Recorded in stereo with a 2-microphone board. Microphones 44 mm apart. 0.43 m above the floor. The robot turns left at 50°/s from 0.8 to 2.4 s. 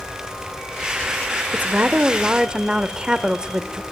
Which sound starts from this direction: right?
A woman speaking, at 1.5 s.